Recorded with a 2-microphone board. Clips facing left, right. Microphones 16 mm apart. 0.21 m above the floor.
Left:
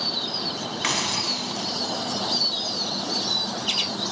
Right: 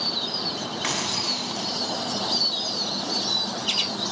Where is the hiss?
20° left (ahead or behind), 1.0 m.